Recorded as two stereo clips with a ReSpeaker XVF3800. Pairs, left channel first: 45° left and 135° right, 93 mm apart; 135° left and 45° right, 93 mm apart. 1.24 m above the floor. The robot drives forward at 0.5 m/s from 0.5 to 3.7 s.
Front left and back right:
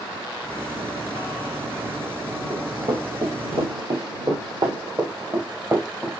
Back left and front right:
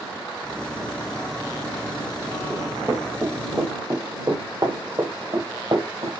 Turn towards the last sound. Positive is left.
turn(degrees=-70)